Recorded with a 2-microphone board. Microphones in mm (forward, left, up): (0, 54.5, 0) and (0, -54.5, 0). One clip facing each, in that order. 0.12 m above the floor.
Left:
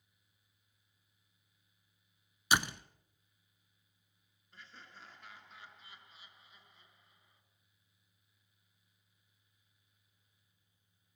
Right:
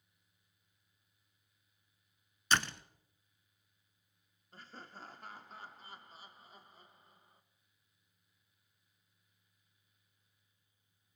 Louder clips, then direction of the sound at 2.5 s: Left 1 dB; 10° left (ahead or behind).